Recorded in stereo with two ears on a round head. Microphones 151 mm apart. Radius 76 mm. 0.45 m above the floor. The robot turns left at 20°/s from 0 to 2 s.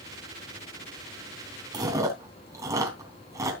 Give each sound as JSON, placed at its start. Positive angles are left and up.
{"t": 1.7, "sound": "chewing", "side_deg": -25, "distance_m": 3.5}